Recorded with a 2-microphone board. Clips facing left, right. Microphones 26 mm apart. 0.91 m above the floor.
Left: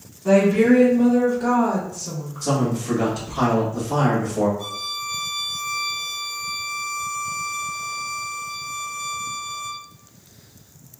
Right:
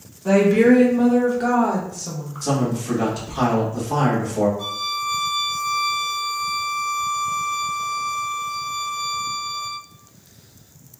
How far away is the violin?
About 0.8 m.